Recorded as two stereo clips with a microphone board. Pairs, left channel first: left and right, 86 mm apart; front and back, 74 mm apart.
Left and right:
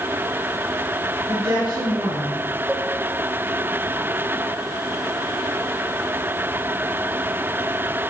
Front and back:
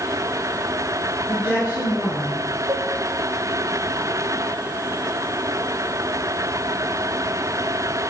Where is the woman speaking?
85° right, 5.5 m.